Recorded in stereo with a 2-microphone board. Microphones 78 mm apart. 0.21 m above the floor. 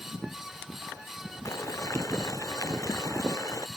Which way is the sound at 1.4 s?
40° left (ahead or behind).